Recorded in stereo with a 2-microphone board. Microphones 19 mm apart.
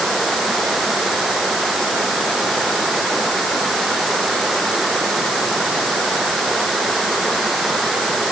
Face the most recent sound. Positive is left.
No sound to turn to.